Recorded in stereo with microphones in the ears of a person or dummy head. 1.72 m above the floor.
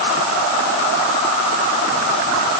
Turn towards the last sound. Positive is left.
No sound to turn to.